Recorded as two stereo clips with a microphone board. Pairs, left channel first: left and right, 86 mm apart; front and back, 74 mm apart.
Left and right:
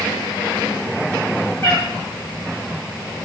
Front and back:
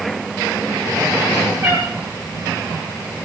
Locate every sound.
1.6 s a cat meowing: 150° left, 5.5 m